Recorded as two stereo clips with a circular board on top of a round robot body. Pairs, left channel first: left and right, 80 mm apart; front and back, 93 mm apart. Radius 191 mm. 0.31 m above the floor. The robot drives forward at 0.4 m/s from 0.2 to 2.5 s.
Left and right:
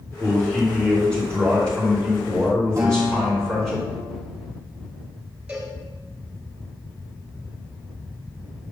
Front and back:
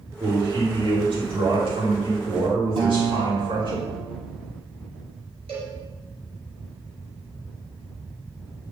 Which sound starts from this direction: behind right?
A guitar, at 2.8 s.